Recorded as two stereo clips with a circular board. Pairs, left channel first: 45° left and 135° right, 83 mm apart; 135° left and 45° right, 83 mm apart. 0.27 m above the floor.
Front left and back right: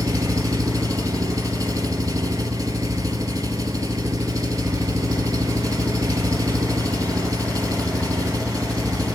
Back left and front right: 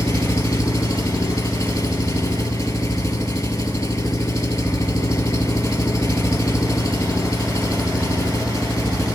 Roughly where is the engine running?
Behind.